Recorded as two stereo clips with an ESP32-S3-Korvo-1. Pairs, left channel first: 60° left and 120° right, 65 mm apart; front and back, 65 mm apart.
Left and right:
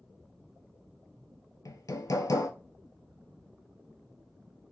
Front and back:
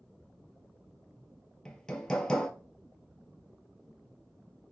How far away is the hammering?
About 0.6 m.